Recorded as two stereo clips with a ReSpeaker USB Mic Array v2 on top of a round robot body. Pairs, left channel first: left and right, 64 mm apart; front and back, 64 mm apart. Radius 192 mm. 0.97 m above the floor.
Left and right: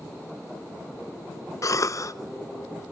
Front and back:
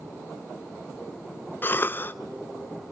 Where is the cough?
55° left, 0.9 m.